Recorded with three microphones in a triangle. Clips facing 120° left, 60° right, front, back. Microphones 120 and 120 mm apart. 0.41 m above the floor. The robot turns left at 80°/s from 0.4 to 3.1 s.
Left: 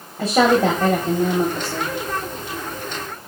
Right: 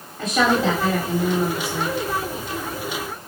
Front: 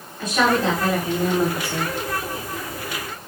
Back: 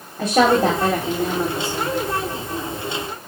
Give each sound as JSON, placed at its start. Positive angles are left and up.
{"t": 0.2, "sound": "a woman speaking", "azimuth_deg": 170, "distance_m": 1.7}